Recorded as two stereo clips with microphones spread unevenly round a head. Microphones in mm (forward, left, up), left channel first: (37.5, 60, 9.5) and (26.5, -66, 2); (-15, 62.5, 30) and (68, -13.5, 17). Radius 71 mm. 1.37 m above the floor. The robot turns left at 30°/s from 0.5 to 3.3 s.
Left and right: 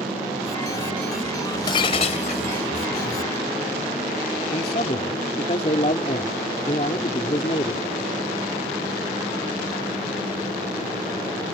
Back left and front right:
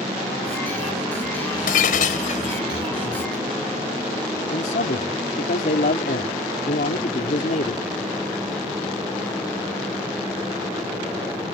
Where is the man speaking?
135° left.